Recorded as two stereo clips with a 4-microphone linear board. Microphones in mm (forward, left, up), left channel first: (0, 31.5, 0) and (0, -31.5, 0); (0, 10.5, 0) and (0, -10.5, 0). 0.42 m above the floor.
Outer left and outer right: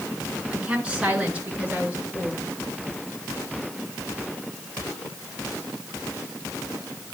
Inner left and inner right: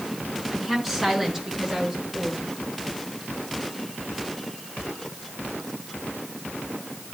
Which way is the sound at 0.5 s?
15° right (ahead or behind).